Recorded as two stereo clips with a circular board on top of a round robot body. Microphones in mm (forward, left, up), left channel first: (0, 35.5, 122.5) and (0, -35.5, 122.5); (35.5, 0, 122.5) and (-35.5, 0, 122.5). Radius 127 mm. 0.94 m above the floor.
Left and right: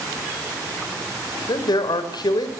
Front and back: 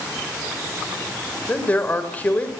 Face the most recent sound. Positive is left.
turn(degrees=70)